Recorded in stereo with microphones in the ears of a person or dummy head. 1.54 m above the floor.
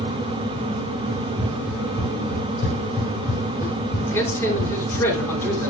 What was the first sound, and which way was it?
Running footsteps, centre (ahead or behind).